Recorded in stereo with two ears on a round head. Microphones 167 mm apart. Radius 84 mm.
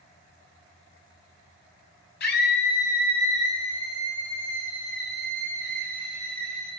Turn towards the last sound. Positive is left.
turn(degrees=5)  # may be behind; listen again after turning